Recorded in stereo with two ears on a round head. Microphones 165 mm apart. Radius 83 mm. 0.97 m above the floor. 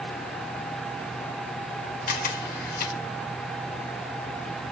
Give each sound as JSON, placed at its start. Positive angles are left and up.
{"t": 2.1, "sound": "a camera shutter", "side_deg": 55, "distance_m": 1.8}